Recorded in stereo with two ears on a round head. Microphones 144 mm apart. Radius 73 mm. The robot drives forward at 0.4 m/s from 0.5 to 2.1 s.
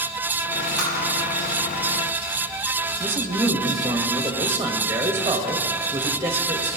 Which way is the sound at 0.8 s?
Centre (ahead or behind).